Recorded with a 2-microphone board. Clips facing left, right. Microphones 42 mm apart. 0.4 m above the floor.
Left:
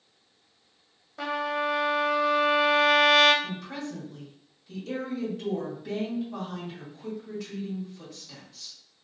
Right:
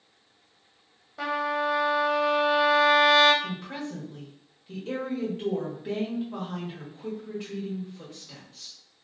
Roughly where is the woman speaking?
Right.